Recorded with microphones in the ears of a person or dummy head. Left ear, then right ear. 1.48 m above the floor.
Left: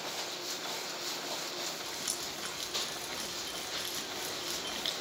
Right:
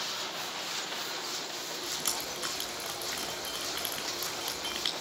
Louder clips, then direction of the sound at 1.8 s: Right 3 dB; 30° right (ahead or behind).